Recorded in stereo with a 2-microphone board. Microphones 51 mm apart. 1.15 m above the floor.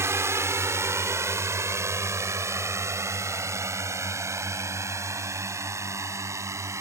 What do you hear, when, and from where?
0.0 s a drone: 70° right (ahead or behind); by 6.8 s 85° right